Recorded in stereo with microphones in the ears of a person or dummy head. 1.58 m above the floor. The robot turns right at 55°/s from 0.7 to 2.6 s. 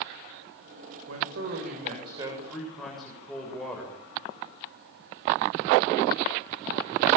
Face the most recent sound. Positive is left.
turn(degrees=0)